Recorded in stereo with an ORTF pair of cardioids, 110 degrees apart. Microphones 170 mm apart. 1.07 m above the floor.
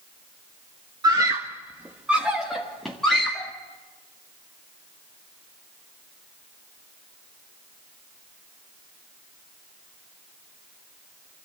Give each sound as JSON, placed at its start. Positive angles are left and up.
{"t": 1.0, "sound": "a scream", "azimuth_deg": -25, "distance_m": 1.1}